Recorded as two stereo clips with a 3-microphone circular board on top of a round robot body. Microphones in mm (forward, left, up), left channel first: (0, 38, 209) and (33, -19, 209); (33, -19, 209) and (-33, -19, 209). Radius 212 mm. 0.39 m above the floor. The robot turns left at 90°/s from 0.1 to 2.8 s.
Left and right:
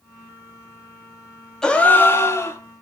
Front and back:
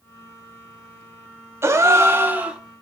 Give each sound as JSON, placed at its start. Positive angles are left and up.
{"t": 1.6, "sound": "a gasp", "azimuth_deg": -165, "distance_m": 1.0}